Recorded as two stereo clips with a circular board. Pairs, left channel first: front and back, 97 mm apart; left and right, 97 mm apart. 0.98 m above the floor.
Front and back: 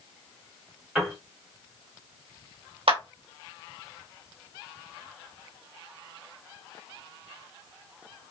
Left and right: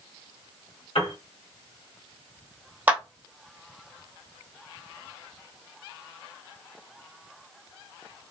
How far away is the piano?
About 1.9 m.